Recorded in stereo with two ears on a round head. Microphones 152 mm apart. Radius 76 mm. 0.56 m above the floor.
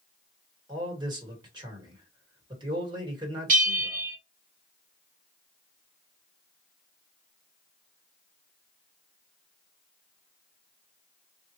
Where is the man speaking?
25° right (ahead or behind), 1.6 m.